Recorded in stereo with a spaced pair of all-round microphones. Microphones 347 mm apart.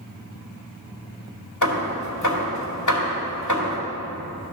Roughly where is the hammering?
Left.